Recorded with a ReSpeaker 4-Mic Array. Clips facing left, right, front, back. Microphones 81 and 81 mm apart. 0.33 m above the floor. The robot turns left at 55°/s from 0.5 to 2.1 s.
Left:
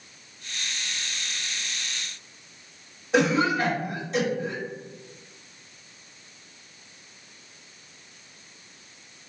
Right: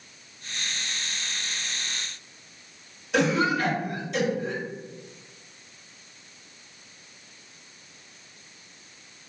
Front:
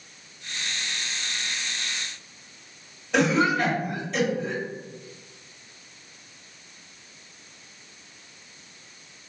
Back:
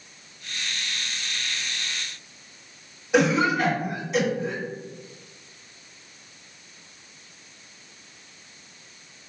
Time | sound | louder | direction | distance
3.1 | a cough | left 1 dB, back 1 dB | 110° left | 1.7 m